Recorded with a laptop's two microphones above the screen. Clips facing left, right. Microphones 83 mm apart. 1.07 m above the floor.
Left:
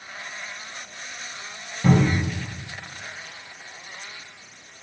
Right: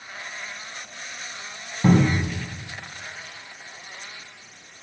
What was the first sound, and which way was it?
A cupboard door, 25° right (ahead or behind).